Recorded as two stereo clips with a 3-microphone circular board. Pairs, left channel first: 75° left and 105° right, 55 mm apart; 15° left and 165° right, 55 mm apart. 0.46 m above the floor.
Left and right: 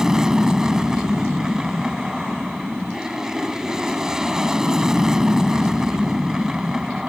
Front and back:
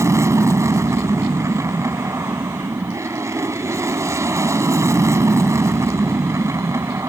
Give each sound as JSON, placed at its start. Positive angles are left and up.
{"t": 0.0, "sound": "an aircraft", "azimuth_deg": 175}